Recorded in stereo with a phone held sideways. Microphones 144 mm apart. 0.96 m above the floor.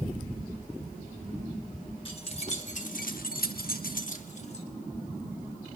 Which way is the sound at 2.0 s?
35° left (ahead or behind).